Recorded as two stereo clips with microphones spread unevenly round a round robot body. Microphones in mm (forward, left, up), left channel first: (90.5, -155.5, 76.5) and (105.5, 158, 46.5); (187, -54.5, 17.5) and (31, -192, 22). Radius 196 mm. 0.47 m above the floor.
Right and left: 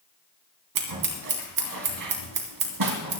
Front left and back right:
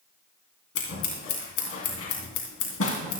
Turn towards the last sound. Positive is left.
turn(degrees=70)